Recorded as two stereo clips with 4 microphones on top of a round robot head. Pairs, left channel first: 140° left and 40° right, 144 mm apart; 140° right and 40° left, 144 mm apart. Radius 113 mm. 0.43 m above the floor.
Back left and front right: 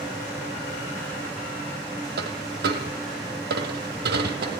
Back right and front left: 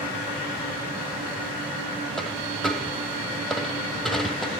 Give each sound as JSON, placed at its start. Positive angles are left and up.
{"t": 2.2, "sound": "a dropped coin", "azimuth_deg": -50, "distance_m": 1.5}